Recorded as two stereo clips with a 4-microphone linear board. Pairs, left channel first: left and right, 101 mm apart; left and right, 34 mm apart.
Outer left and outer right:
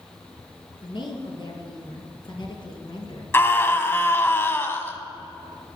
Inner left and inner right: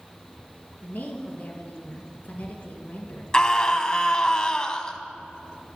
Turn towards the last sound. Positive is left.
turn(degrees=25)  # may be behind; listen again after turning